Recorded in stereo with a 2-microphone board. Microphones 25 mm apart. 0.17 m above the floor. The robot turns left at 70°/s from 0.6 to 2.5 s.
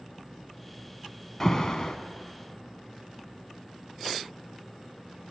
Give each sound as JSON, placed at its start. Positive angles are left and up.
{"t": 1.4, "sound": "an alarm", "azimuth_deg": 135, "distance_m": 1.3}